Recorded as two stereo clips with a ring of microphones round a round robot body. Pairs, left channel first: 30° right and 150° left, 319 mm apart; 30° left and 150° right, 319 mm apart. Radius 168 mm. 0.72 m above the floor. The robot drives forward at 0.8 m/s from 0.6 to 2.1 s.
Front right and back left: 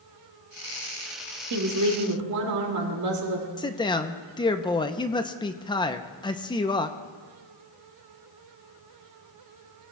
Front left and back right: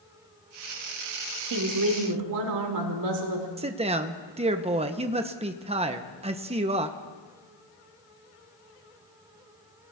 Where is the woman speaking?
175° right, 1.9 m.